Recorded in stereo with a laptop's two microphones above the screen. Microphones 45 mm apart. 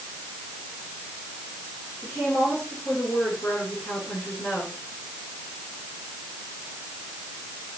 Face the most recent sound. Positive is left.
turn(degrees=40)  # may be behind; listen again after turning